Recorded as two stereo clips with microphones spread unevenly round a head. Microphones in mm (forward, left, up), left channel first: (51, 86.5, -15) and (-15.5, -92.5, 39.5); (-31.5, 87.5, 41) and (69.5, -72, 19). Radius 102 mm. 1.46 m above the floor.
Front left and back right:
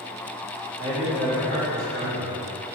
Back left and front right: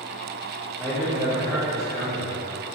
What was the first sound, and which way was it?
A man speaking, 150° right.